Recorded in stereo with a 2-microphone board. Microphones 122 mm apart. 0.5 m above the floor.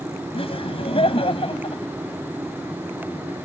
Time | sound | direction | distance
0.3 | laughter | 50° left (ahead or behind) | ?